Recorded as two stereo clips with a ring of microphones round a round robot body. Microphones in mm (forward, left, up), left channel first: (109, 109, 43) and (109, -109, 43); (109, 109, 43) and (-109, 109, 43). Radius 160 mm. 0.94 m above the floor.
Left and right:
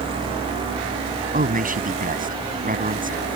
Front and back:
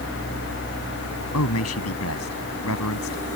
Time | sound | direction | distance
1.3 | a man speaking | 40° right | ?